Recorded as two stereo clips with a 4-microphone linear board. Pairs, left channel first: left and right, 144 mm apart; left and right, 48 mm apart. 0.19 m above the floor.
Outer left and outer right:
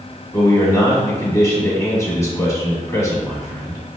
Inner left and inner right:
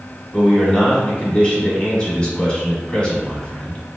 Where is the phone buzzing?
No phone buzzing in this recording.